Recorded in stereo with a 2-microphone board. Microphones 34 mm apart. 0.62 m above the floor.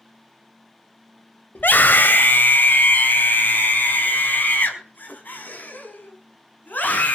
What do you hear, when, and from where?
1.6 s a scream: 75° left (ahead or behind), 2.5 m; by 7.2 s 60° left (ahead or behind), 6 m